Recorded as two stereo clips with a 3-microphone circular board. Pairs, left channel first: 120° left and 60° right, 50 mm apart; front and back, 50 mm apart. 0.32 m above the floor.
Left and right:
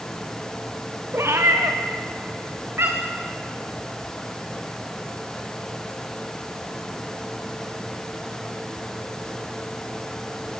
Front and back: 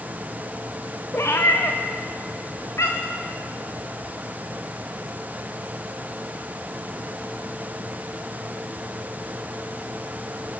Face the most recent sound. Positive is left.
turn(degrees=-20)